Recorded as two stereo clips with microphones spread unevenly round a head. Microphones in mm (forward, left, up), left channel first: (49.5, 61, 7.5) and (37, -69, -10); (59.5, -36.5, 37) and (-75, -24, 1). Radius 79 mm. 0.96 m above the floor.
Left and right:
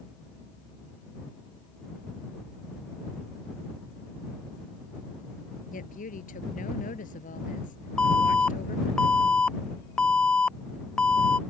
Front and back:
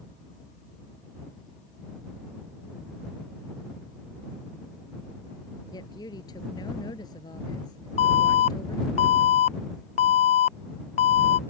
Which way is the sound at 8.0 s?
10° right.